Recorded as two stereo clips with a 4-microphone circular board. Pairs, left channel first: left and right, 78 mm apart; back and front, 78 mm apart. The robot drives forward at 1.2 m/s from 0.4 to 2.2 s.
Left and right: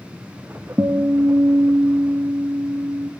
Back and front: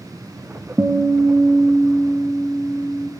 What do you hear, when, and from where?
0.8 s a guitar: 50° right, 2.5 m; by 3.1 s 100° right, 1.9 m